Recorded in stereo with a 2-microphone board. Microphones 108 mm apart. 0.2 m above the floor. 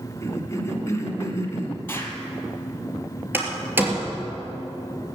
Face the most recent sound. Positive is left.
turn(degrees=-20)  # may be behind; listen again after turning